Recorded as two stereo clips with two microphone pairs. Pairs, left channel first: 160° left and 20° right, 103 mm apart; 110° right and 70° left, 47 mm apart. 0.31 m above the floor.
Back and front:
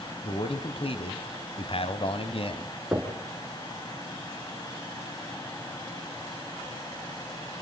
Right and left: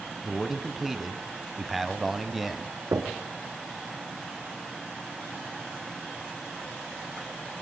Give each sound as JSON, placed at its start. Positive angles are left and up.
{"t": 0.2, "sound": "a man speaking", "azimuth_deg": 160, "distance_m": 2.0}
{"t": 2.9, "sound": "knocking", "azimuth_deg": 65, "distance_m": 4.5}